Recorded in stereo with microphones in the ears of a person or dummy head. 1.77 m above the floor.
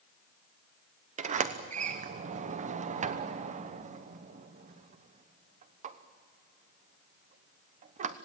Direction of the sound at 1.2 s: 35° right (ahead or behind).